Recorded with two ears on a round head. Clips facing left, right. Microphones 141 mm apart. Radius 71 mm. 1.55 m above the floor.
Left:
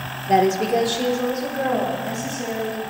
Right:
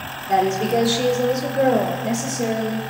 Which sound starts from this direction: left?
A woman speaking, at 0.3 s.